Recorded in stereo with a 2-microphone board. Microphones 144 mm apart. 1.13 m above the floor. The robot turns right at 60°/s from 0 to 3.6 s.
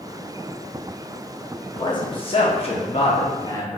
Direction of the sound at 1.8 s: 40° left.